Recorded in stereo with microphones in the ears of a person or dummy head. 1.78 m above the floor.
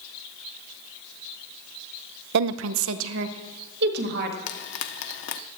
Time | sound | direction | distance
2.3 | a woman speaking | 65° right (ahead or behind) | 0.5 m
4.5 | frying | 60° left (ahead or behind) | 1.0 m